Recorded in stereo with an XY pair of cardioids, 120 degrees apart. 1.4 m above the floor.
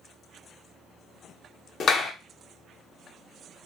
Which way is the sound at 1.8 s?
45° left.